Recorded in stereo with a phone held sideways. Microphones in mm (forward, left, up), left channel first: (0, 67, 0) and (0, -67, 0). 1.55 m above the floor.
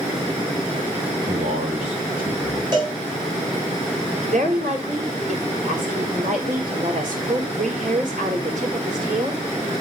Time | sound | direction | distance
1.3 | a man speaking | 80° right | 4.5 m
2.7 | a cowbell | 30° right (ahead or behind) | 7.5 m
4.2 | a woman speaking | 60° right (ahead or behind) | 5.5 m